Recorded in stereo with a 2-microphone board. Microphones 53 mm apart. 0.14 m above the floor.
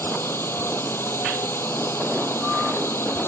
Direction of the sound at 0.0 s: 45° left (ahead or behind).